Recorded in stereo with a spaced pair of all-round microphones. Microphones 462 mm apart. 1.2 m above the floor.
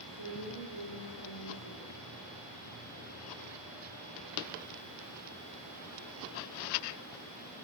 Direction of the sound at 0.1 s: 70° left (ahead or behind).